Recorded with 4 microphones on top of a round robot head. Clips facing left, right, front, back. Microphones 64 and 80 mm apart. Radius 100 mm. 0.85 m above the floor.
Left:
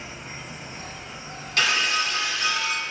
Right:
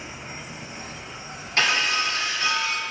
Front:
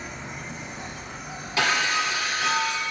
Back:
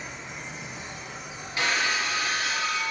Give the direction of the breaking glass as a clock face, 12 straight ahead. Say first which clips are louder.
Right 1 dB, front 3 dB; 1 o'clock.